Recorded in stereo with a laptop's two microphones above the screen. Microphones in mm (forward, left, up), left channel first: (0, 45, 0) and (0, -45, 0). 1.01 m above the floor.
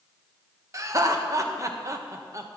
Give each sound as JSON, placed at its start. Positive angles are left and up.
{"t": 0.7, "sound": "laughter", "side_deg": -40, "distance_m": 1.1}